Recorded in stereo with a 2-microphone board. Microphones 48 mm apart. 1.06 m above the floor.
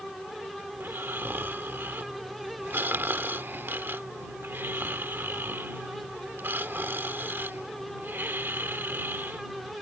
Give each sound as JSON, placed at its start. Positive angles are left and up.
{"t": 0.7, "sound": "snoring", "side_deg": -50}